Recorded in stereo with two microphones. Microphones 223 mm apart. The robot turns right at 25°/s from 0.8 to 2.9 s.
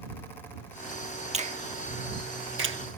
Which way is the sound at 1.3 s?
30° right (ahead or behind).